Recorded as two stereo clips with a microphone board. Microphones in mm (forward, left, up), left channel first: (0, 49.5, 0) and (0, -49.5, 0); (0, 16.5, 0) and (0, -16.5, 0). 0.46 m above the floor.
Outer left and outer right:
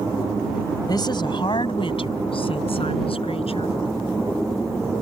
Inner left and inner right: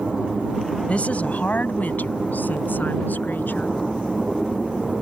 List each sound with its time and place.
0.9 s a woman speaking: 40° left (ahead or behind); by 3.8 s 75° left (ahead or behind)